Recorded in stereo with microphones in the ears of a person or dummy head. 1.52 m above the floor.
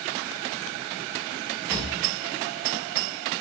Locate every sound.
1.7 s a drawer: 5° right (ahead or behind), 0.9 m